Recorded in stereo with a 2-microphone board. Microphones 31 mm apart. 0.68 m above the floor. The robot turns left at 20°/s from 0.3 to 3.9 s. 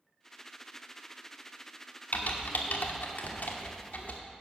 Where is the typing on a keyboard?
70° left (ahead or behind), 1.1 m; by 4.2 s 60° left (ahead or behind), 1.1 m.